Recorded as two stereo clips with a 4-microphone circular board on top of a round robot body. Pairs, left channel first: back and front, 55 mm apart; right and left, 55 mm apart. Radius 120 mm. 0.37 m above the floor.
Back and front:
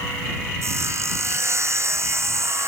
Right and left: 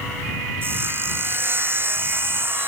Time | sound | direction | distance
0.6 | sawing | 40° left | ?